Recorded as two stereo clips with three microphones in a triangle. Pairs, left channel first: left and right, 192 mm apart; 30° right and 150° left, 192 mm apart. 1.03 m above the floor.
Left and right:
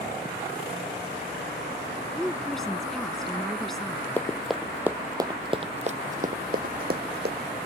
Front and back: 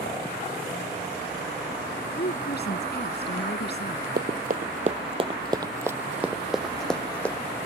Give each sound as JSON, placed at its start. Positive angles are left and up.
{"t": 2.2, "sound": "a woman speaking", "azimuth_deg": 0}
{"t": 4.2, "sound": "running footsteps", "azimuth_deg": 170}